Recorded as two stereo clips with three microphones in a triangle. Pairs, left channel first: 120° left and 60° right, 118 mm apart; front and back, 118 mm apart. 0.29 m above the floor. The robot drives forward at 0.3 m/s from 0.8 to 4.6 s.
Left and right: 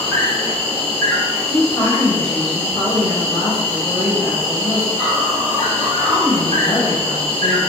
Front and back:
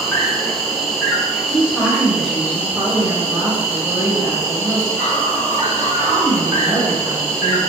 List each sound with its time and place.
0.0 s an insect: 90° left, 1.9 m; by 7.7 s 145° left, 2 m
1.5 s a woman speaking: 75° left, 1.0 m; by 7.6 s 150° left, 1.2 m